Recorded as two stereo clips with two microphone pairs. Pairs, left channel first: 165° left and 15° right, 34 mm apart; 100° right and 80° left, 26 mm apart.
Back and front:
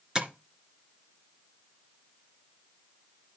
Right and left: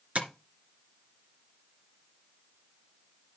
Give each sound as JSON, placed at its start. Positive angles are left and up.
{"t": 0.1, "sound": "tapping", "azimuth_deg": 50, "distance_m": 2.5}